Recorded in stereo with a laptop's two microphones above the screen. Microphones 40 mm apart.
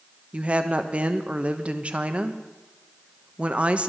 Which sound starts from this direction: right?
A woman speaking, at 0.3 s.